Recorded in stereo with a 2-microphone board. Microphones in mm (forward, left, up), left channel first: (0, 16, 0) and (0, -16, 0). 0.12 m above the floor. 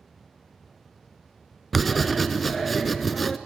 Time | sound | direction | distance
1.7 | writing | centre (ahead or behind) | 0.6 m